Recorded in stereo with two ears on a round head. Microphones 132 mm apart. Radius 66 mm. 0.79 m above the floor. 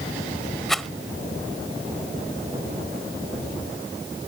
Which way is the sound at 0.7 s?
Centre (ahead or behind).